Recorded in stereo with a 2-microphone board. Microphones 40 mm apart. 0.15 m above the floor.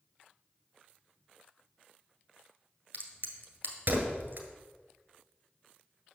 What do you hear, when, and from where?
2.9 s a crack: 55° right (ahead or behind), 1.5 m